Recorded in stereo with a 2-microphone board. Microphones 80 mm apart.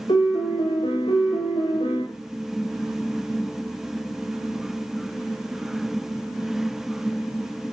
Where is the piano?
85° left, 5.5 m.